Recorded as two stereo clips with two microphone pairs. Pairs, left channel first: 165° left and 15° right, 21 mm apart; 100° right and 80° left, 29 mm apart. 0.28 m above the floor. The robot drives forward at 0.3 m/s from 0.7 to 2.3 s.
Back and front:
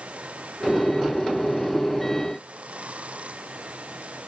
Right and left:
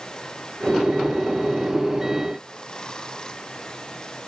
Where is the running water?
35° right.